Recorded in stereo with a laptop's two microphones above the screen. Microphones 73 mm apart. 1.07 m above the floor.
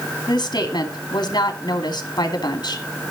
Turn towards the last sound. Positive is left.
turn(degrees=80)